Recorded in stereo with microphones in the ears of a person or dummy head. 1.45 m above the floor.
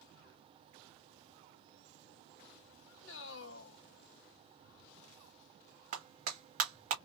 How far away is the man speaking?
About 0.8 m.